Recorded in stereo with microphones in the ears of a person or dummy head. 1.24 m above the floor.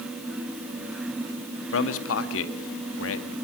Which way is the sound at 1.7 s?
85° left.